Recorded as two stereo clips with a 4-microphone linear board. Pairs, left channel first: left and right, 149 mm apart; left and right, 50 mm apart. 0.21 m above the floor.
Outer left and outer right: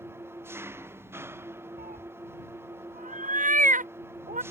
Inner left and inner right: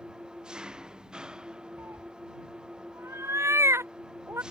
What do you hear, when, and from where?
0.0 s an engine running: 15° right (ahead or behind)
1.8 s a cat meowing: 65° right (ahead or behind)